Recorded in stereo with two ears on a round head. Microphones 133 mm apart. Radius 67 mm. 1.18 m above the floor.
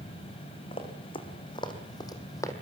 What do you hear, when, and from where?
0.7 s running footsteps: 35° left (ahead or behind), 4 m; by 2.5 s 20° left (ahead or behind), 2.5 m